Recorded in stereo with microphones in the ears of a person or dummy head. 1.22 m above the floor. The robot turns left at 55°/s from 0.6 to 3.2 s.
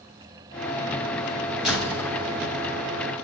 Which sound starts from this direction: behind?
A door slam, at 1.6 s.